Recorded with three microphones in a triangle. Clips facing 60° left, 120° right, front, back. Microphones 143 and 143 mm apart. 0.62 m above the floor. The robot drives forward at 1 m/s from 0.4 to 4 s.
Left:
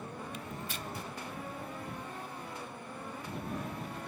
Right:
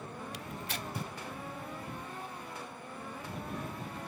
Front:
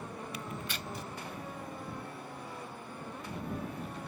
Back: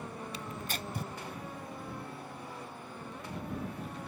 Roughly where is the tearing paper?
Behind right.